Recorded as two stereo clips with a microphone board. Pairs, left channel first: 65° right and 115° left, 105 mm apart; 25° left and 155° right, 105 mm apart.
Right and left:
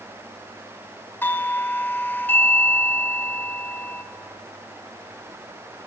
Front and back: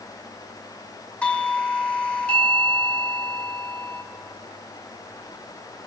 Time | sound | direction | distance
1.2 | a doorbell | 35° right | 1.5 m